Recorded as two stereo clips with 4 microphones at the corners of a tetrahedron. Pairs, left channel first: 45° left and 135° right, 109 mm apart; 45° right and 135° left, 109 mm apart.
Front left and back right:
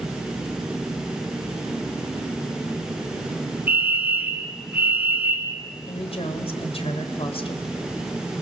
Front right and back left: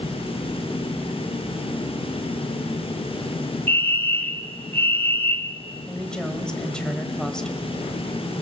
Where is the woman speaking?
35° left, 2.5 m.